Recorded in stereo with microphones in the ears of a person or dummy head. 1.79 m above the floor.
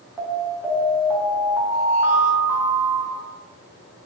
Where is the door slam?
I don't hear a door slam.